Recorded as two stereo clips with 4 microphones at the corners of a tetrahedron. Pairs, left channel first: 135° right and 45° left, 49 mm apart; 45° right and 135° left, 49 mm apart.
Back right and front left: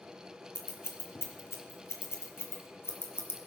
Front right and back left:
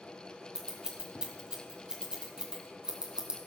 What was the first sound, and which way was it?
Scissors, 155° right.